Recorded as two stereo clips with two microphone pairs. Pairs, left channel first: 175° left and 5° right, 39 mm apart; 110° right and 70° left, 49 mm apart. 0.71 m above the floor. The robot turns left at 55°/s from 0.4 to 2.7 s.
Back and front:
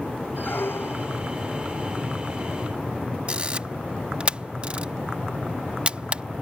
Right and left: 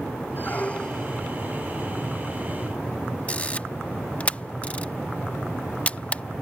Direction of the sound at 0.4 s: 155° right.